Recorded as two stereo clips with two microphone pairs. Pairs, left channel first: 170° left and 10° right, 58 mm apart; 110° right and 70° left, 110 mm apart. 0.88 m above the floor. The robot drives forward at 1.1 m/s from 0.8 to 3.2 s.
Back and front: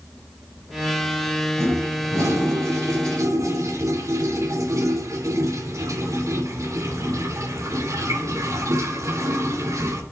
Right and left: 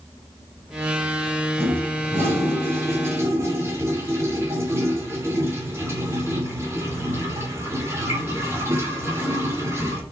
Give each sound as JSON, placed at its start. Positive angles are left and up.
{"t": 1.6, "sound": "a toilet flushing", "azimuth_deg": 0, "distance_m": 4.5}